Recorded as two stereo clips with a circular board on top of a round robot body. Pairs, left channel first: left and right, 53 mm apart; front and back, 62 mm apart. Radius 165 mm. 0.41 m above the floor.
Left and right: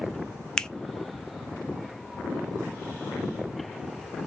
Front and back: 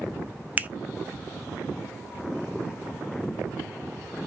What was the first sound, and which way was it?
A finger snap, 155° left.